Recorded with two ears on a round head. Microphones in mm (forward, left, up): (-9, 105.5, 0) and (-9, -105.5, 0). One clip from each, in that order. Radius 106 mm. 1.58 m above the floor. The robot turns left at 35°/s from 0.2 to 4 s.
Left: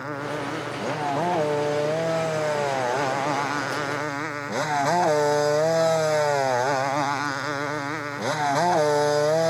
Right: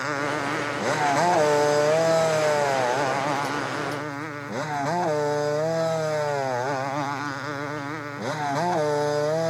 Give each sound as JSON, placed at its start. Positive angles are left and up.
{"t": 0.0, "sound": "a motorcycle", "side_deg": -80}